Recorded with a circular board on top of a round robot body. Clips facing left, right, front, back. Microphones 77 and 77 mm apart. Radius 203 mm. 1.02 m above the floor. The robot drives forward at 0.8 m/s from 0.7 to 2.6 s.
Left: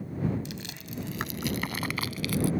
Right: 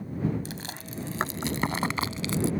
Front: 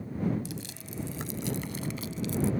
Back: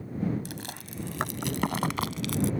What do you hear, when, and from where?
0.5 s chewing: 145° right; by 2.5 s 155° right